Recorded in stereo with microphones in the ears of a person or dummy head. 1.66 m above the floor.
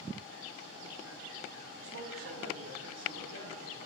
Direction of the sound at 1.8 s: 60° right (ahead or behind).